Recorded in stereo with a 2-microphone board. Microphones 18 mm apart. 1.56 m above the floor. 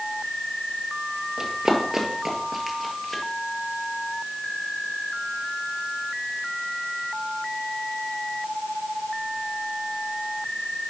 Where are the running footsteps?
40° right (ahead or behind), 2.0 m; by 3.2 s 15° left (ahead or behind), 2 m.